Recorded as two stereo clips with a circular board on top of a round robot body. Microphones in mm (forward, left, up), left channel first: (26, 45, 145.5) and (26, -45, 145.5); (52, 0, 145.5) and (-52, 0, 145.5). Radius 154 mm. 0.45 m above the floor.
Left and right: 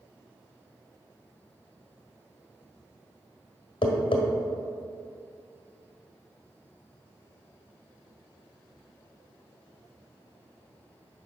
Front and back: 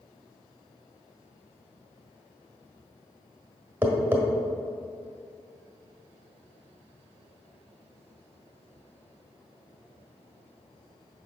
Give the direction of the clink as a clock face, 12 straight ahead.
I don't hear a clink.